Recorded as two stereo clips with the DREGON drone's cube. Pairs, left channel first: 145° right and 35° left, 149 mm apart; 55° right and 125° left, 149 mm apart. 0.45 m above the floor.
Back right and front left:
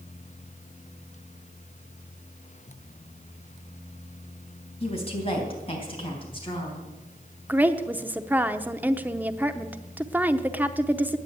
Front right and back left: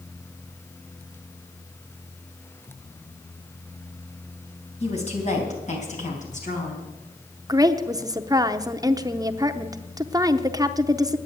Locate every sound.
4.8 s a woman speaking: 100° right, 3.5 m; by 6.9 s 90° right, 4.5 m
7.5 s a woman speaking: 100° left, 0.7 m